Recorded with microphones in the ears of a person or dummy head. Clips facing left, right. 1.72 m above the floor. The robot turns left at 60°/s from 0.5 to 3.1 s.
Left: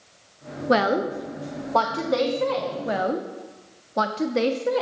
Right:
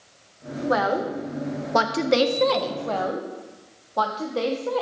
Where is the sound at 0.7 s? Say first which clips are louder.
Left 3 dB; 40° left (ahead or behind), 0.6 m; by 2.8 s 60° right (ahead or behind), 0.6 m.